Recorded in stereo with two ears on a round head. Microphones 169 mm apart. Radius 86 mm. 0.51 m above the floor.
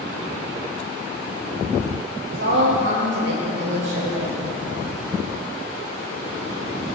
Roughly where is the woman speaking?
Right.